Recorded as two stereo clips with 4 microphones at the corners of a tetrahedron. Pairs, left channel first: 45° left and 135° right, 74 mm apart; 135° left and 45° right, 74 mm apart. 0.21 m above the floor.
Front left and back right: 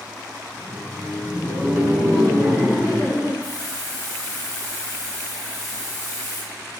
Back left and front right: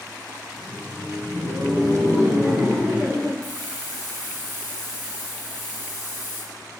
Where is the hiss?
10° left, 1.9 m.